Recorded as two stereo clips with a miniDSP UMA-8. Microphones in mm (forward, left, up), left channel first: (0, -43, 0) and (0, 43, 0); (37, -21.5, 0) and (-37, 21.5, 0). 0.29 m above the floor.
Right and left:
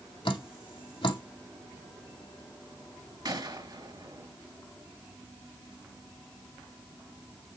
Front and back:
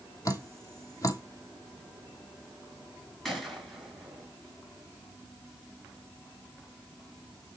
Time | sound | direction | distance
0.2 | dripping | 80° right | 1.4 m
3.2 | a gunshot | 60° left | 4.5 m